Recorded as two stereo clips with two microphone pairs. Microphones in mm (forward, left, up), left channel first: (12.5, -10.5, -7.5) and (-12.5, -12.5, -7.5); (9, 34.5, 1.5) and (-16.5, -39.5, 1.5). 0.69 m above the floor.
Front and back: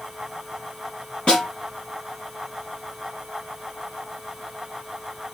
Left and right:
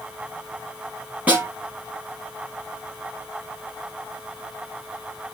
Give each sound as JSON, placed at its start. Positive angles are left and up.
{"t": 1.3, "sound": "a snare drum", "azimuth_deg": -45, "distance_m": 5.5}